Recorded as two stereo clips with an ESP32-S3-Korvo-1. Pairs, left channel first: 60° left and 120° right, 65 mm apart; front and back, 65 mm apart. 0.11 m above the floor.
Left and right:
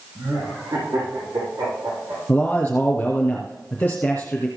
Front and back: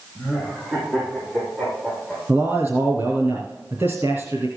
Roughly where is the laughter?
Behind right.